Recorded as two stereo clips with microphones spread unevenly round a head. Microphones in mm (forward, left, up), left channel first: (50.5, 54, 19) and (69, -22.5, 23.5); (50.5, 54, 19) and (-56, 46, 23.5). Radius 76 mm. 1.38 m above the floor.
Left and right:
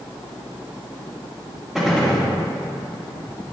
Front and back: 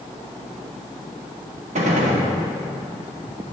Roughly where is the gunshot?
Behind.